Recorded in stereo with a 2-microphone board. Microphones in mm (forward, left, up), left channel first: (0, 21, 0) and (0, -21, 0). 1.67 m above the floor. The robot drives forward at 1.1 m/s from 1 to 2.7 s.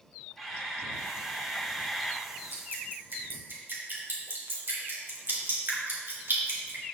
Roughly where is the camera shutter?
Centre.